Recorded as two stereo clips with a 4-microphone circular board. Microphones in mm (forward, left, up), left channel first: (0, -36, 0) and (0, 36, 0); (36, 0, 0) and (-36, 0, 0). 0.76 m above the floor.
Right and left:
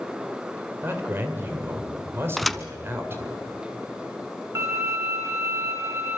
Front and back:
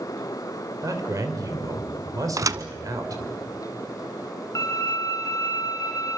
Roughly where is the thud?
Behind.